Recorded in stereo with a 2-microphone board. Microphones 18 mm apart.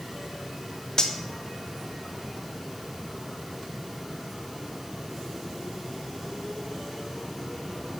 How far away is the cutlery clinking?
About 0.6 m.